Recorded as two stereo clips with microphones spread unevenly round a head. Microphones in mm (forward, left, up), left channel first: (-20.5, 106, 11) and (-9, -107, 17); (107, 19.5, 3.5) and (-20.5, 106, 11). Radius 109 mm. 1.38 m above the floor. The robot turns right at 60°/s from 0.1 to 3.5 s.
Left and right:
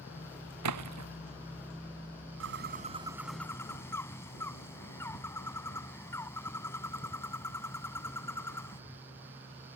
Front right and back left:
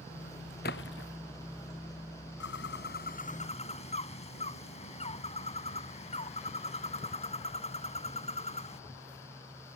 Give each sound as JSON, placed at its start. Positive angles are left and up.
{"t": 0.6, "sound": "a splash", "azimuth_deg": -85}
{"t": 2.4, "sound": "a bird", "azimuth_deg": -55}